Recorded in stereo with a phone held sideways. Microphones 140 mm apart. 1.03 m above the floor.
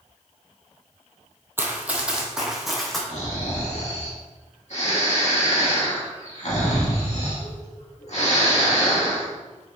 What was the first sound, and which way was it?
Running footsteps, 15° right (ahead or behind).